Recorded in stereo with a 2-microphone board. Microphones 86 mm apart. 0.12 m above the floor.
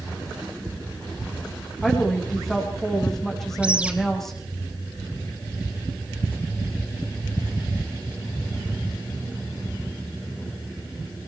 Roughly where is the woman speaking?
Centre.